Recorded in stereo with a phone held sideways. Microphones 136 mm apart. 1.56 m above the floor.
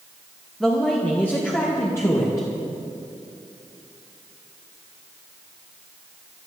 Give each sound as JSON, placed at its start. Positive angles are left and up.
{"t": 0.6, "sound": "a man speaking", "side_deg": 0, "distance_m": 1.4}